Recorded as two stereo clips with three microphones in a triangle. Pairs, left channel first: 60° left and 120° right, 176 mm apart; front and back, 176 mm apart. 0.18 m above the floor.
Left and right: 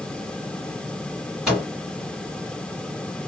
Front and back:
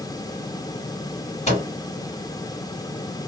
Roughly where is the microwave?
Ahead right.